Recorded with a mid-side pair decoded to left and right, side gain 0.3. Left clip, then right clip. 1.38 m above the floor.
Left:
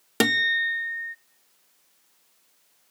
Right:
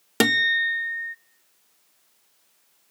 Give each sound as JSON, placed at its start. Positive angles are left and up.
{"t": 0.2, "sound": "a guitar", "azimuth_deg": -15, "distance_m": 0.5}